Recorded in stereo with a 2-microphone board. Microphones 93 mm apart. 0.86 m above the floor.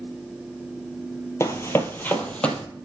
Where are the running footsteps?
30° left (ahead or behind), 0.9 m; by 2.6 s 10° left (ahead or behind), 1.2 m.